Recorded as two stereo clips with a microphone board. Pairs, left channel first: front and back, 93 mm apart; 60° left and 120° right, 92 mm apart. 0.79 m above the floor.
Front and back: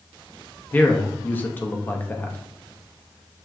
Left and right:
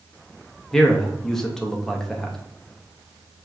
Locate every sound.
0.7 s a man speaking: 15° right, 0.6 m